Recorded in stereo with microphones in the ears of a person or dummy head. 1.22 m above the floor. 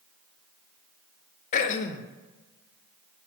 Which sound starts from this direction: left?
Throat clearing, at 1.5 s.